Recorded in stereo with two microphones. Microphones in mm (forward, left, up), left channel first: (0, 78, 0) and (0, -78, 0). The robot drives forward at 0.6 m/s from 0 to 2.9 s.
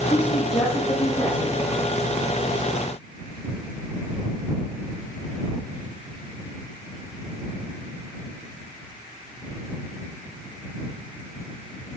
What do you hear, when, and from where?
0.1 s a woman speaking: 45° left (ahead or behind), 9 m; by 1.7 s 40° left (ahead or behind), 9.5 m